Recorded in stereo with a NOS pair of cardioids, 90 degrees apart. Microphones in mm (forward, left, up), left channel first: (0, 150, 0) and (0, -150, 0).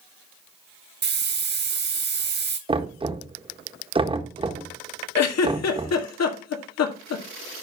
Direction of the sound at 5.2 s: 60° left.